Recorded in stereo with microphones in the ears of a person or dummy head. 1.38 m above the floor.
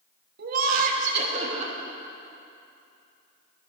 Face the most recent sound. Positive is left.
turn(degrees=-30)  # may be behind; listen again after turning